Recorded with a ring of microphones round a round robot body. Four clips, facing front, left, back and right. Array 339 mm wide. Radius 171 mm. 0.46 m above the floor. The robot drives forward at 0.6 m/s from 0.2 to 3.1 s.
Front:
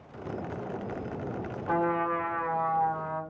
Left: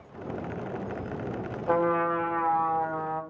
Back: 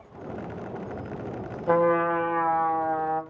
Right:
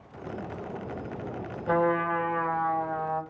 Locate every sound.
1.7 s a trumpet: 170° right, 2 m